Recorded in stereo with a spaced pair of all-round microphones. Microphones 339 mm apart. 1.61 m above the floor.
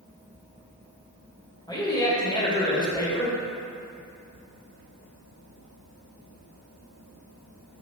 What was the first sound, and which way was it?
A man speaking, 10° left (ahead or behind).